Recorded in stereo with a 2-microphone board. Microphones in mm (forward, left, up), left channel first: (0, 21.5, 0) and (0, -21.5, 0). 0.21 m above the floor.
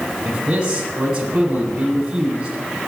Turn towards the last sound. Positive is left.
turn(degrees=-20)  # may be behind; listen again after turning